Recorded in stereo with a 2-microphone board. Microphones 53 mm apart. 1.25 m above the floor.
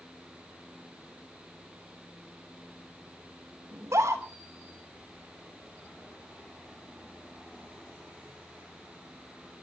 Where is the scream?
80° right, 3.5 m.